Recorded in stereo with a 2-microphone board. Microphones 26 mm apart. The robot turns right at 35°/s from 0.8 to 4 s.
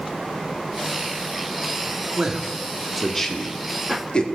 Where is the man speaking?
30° right (ahead or behind), 1.6 m; by 4.2 s 35° left (ahead or behind), 1.6 m.